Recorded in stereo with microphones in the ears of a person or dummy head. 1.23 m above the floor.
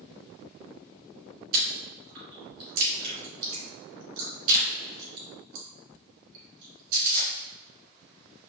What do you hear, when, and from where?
1.5 s chewing: 55° right (ahead or behind), 2.0 m